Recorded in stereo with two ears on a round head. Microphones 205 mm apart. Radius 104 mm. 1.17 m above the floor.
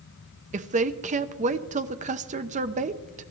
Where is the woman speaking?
35° right (ahead or behind), 0.8 m.